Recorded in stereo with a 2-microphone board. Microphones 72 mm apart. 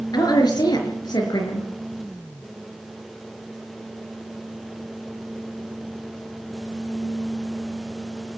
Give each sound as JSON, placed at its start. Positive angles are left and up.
{"t": 0.1, "sound": "a woman speaking", "side_deg": 70, "distance_m": 4.5}